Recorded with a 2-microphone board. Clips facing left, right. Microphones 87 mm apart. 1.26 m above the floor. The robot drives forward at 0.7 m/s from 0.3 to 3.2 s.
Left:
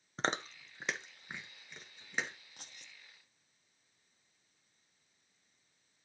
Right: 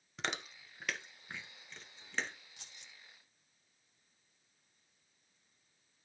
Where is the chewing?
35° left (ahead or behind), 0.7 m; by 2.4 s 10° left (ahead or behind), 2 m.